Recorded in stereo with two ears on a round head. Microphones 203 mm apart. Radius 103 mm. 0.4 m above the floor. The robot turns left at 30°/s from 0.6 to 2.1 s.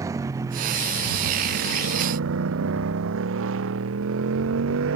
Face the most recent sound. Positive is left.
turn(degrees=-60)